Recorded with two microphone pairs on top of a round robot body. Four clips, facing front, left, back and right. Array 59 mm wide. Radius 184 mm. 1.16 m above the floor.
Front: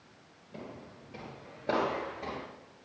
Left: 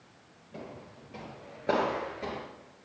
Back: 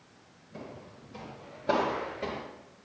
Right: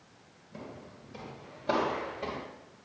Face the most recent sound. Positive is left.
turn(degrees=-160)